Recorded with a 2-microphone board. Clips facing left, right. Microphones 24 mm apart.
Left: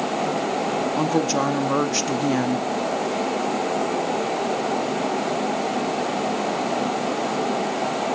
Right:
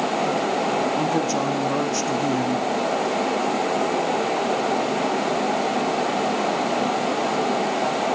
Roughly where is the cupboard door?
No cupboard door in this recording.